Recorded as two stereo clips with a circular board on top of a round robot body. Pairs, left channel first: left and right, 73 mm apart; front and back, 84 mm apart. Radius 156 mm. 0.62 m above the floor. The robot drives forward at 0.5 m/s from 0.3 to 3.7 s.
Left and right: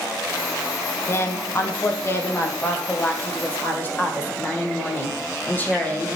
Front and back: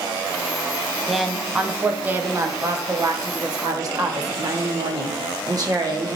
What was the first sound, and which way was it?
A woman speaking, 90° left.